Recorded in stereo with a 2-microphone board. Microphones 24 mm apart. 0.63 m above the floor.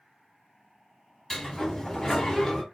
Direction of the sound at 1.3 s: 15° left (ahead or behind).